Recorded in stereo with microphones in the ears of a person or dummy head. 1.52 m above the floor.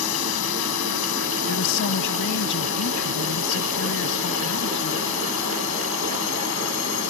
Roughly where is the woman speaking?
Left.